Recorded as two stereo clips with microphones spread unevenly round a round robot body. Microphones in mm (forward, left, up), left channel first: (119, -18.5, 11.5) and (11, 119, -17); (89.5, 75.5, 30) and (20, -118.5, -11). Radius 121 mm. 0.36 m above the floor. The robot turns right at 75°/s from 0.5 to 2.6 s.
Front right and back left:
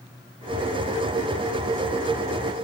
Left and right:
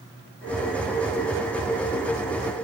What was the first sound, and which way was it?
Only background noise.